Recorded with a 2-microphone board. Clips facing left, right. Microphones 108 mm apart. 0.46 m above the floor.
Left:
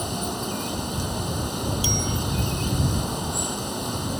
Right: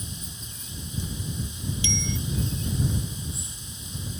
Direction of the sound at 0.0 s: 70° left (ahead or behind).